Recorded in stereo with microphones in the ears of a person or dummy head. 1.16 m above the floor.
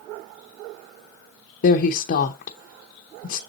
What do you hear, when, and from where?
1.6 s a woman speaking: 45° left (ahead or behind), 0.6 m